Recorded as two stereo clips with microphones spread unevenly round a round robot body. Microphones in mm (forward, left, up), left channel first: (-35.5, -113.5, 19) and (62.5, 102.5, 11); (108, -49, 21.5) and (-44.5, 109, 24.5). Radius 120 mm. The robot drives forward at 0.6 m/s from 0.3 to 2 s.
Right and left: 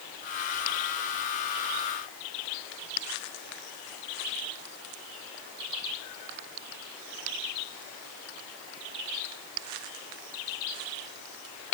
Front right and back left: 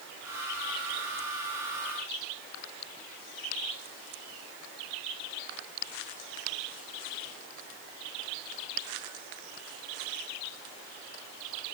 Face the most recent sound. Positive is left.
No sound to turn to.